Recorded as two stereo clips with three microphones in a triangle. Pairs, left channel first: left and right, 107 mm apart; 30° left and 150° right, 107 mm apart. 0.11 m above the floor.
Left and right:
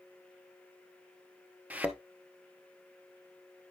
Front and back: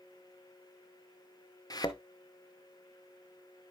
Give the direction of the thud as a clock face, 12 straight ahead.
1 o'clock.